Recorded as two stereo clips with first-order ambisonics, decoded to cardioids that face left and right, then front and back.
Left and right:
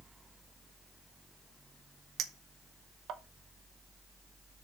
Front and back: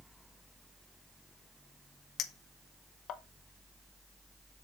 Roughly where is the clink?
Ahead right.